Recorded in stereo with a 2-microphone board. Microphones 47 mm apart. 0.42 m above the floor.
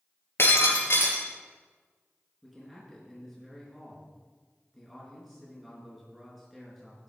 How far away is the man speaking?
About 5.5 m.